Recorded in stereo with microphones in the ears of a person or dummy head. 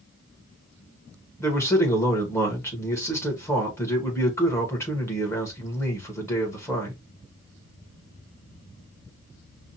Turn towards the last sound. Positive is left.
turn(degrees=10)  # may be behind; listen again after turning